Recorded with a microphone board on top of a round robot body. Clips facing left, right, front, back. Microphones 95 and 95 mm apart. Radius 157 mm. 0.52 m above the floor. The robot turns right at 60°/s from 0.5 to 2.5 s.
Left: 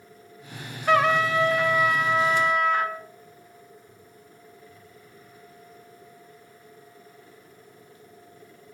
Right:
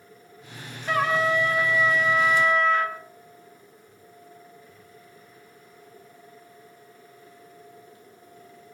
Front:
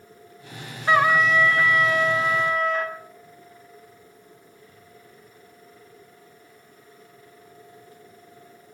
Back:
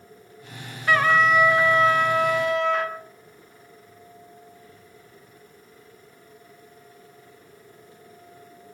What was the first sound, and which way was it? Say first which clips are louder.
A trumpet: left 3 dB, even; 65° left.